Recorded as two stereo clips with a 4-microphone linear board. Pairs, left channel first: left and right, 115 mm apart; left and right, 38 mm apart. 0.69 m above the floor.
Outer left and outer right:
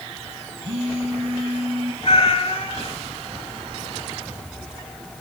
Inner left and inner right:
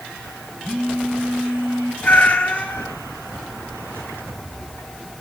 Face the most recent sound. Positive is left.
turn(degrees=55)  # may be behind; listen again after turning